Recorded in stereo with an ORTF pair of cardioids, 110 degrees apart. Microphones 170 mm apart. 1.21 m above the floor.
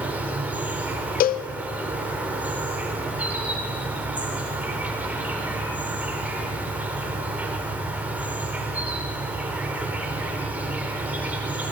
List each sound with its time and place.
0.0 s an insect: 10° right, 3.5 m
1.2 s a cowbell: 60° left, 0.7 m